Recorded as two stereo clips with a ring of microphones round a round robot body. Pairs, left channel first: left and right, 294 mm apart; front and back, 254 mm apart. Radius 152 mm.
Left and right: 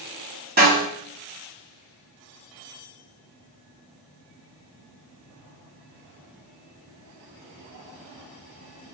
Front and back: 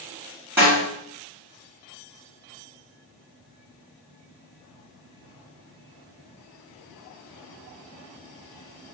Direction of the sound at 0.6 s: 105° right.